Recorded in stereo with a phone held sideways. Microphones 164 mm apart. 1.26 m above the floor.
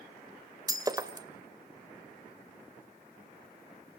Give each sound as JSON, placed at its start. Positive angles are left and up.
{"t": 0.7, "sound": "breaking glass", "side_deg": -25, "distance_m": 2.0}